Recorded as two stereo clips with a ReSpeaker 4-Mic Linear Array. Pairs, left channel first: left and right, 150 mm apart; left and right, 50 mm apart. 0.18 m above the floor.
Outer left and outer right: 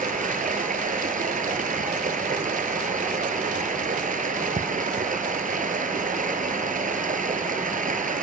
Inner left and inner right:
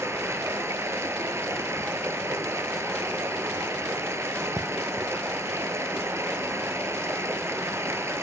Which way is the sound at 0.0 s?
60° right (ahead or behind).